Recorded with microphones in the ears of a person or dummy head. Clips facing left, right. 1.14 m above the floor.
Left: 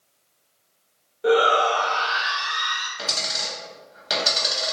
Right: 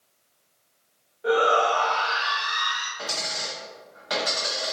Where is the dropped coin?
35° left (ahead or behind), 1.0 m.